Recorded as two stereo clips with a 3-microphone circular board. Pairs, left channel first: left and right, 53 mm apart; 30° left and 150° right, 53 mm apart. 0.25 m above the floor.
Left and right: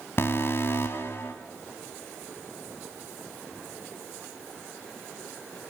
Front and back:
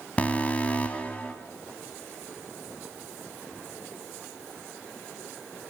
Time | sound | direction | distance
0.2 | an alarm | 85° left | 1.5 m